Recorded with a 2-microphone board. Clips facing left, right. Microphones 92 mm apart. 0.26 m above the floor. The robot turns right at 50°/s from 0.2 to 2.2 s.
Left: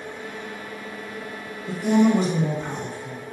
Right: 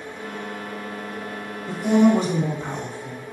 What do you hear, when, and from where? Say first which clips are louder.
1.7 s a woman speaking: right 2 dB; 5° left (ahead or behind), 1.3 m; by 3.2 s 5° right (ahead or behind), 1.3 m